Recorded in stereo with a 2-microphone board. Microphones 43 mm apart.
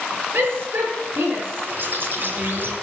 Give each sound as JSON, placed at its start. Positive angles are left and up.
{"t": 0.3, "sound": "a shout", "side_deg": -55, "distance_m": 6.5}
{"t": 1.7, "sound": "a bird", "side_deg": -50, "distance_m": 2.5}